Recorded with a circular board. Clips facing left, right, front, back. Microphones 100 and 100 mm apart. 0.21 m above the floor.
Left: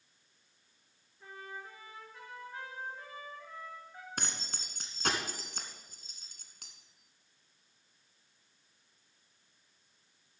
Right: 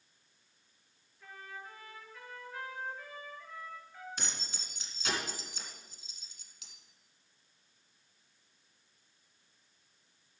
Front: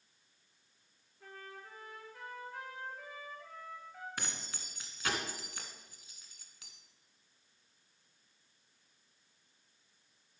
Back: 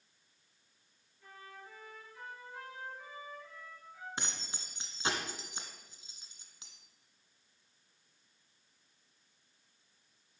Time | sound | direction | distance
1.2 | a trumpet | 25° left | 3.5 m
4.2 | keys jangling | 115° left | 1.5 m